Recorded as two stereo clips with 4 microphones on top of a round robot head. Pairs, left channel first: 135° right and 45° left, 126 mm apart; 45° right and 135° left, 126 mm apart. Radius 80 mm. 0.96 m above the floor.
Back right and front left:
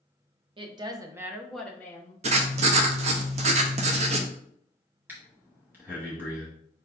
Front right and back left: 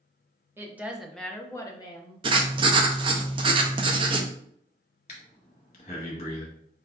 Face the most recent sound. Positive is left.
turn(degrees=-30)